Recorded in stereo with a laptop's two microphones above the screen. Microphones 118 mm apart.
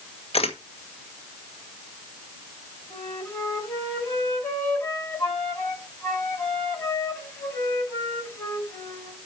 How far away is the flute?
About 4.5 m.